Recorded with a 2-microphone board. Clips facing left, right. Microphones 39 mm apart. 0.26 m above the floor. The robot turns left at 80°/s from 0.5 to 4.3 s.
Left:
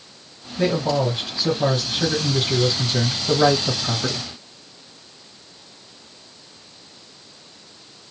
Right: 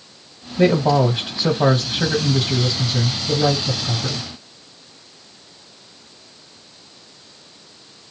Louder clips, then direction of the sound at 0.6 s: Right 5 dB; 40° right.